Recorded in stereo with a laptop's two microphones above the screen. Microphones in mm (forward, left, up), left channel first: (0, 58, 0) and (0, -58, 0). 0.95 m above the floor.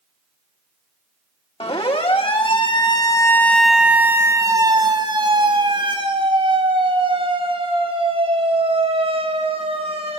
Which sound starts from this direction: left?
A siren, at 1.6 s.